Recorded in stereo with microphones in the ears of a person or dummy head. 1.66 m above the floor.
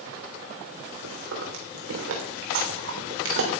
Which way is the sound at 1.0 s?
70° right (ahead or behind).